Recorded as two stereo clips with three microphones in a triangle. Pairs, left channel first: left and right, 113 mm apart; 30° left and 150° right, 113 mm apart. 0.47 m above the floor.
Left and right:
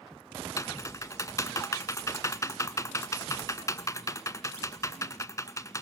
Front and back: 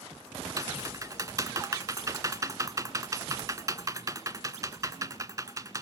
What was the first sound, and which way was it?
Typing on a keyboard, 150° left.